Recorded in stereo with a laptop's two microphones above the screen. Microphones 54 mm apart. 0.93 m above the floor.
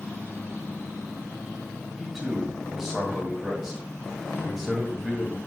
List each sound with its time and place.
2.0 s a man speaking: 10° right (ahead or behind), 1.3 m